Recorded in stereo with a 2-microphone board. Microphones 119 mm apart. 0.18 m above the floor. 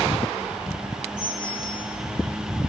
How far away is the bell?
About 6.5 m.